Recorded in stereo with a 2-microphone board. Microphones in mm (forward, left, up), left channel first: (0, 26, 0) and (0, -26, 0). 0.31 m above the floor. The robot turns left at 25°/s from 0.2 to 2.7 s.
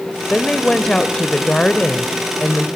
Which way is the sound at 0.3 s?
15° left (ahead or behind).